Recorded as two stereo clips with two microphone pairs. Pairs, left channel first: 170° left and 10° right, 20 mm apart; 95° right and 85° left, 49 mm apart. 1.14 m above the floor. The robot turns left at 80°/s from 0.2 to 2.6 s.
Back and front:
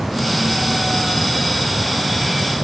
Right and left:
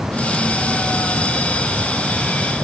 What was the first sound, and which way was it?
Only background noise.